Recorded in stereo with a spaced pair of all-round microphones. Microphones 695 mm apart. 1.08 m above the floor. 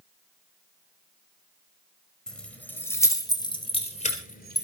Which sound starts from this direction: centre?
Keys jangling, at 2.3 s.